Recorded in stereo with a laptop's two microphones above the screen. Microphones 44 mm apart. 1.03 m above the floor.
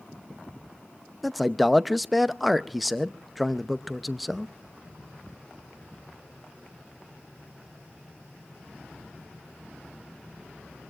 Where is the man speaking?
Centre (ahead or behind), 0.7 m.